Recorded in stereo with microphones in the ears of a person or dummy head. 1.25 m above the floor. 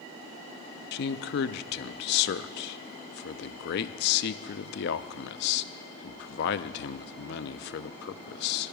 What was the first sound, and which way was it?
A man speaking, 60° left (ahead or behind).